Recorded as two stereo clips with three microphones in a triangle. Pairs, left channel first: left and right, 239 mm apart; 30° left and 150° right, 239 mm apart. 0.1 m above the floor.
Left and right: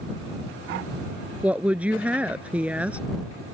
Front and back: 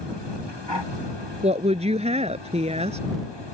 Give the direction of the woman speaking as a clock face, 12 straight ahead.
6 o'clock.